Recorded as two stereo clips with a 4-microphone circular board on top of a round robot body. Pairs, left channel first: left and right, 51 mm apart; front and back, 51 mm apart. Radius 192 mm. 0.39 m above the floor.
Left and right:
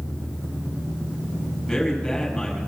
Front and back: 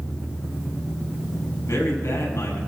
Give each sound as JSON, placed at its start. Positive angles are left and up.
{"t": 1.7, "sound": "a man speaking", "azimuth_deg": 10, "distance_m": 6.0}